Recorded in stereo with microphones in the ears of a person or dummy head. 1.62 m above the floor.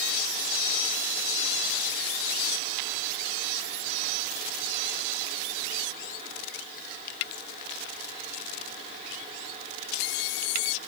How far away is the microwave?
I don't hear a microwave.